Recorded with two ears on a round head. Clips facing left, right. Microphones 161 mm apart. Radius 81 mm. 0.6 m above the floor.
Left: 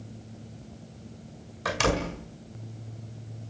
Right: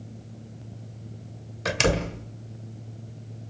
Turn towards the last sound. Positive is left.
turn(degrees=-30)  # may be behind; listen again after turning